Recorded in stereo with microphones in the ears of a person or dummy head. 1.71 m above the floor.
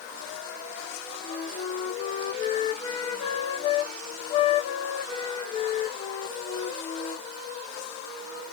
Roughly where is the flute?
Left.